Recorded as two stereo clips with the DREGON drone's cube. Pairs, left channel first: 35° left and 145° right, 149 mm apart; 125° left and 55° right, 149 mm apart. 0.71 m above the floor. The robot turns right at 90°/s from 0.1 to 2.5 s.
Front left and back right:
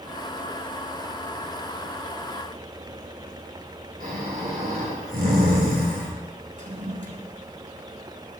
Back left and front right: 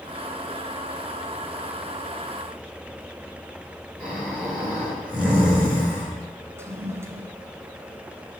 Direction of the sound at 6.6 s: 125° right.